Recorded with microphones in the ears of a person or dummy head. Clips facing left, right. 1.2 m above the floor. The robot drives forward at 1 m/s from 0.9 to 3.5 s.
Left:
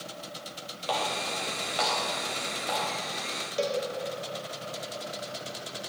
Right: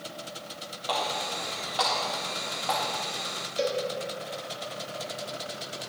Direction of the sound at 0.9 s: 40° left (ahead or behind).